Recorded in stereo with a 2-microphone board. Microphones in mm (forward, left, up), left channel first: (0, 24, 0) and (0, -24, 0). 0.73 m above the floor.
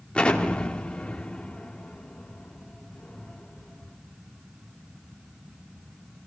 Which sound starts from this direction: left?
An explosion, at 0.1 s.